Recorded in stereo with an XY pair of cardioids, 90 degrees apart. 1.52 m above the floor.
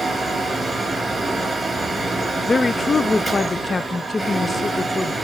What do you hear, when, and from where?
0.0 s a fan: 5° right, 4 m
2.5 s a woman speaking: 30° left, 0.5 m